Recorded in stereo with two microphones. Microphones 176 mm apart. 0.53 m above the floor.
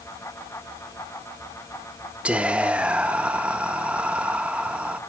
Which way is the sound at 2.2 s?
5° right (ahead or behind).